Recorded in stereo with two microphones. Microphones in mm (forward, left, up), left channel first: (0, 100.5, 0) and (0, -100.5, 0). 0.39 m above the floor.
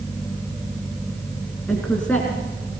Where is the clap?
I don't hear a clap.